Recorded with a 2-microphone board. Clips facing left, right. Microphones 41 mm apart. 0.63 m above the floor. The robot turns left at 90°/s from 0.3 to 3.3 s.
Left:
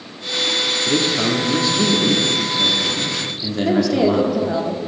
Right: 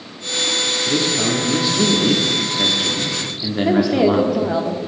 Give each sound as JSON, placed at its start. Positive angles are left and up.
{"t": 0.9, "sound": "a man speaking", "azimuth_deg": 60, "distance_m": 1.1}
{"t": 3.6, "sound": "a woman speaking", "side_deg": -15, "distance_m": 1.0}